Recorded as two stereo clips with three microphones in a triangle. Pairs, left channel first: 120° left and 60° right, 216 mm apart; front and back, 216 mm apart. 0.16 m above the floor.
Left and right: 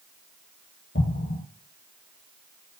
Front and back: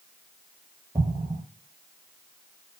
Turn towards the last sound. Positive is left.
turn(degrees=105)